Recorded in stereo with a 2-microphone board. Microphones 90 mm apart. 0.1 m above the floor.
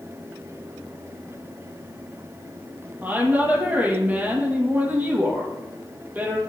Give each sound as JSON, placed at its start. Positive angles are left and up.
{"t": 3.0, "sound": "a woman speaking", "side_deg": -20, "distance_m": 3.0}